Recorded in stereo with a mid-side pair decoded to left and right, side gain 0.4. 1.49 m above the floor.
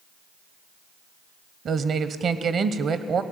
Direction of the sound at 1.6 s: 60° right.